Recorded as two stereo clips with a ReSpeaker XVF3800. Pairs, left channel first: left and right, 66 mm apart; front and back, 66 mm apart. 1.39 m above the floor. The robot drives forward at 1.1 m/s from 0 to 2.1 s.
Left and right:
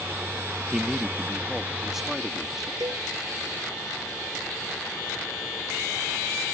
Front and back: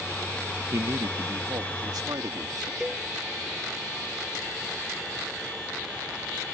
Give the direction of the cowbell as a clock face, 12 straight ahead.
3 o'clock.